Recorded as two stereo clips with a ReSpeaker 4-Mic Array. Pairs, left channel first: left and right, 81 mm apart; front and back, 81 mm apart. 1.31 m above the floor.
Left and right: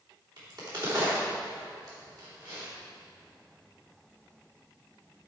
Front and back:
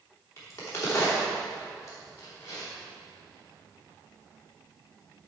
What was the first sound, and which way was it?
A crack, 55° right.